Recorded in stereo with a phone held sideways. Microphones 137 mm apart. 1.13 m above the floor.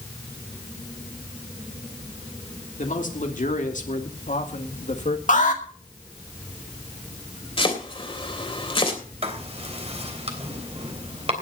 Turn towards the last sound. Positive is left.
turn(degrees=-50)  # may be behind; listen again after turning